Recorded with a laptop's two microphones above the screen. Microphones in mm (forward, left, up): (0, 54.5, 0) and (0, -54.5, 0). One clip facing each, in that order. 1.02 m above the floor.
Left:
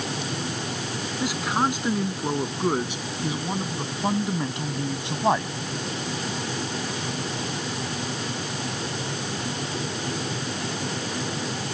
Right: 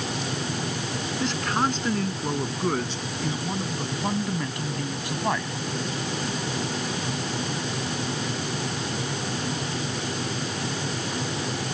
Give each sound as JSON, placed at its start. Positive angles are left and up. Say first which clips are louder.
{"t": 1.2, "sound": "a man speaking", "louder": "left 1 dB", "side_deg": 10}